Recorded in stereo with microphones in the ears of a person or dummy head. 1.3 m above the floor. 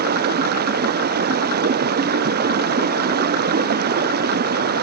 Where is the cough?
I don't hear a cough.